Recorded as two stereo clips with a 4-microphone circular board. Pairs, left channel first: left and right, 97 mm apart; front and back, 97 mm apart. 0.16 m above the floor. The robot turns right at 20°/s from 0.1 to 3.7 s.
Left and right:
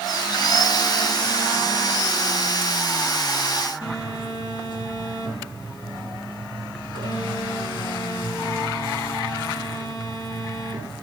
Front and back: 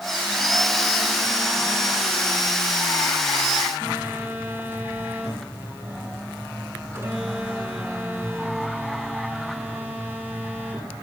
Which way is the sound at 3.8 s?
110° left.